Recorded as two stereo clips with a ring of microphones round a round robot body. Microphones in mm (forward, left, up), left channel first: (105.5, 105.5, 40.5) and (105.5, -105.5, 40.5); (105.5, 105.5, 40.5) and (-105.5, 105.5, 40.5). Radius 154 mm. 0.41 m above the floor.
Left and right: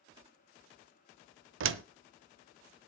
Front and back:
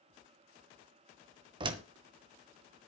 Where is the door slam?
110° right, 0.9 m.